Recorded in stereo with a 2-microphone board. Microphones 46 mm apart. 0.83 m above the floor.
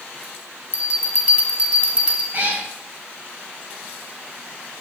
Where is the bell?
25° right (ahead or behind), 1.9 m.